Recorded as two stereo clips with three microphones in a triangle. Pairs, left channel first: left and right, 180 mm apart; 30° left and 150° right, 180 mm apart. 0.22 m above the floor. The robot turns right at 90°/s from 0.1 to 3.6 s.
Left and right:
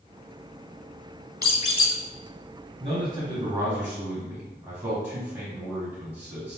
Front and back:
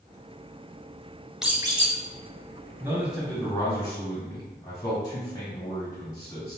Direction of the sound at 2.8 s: 95° right.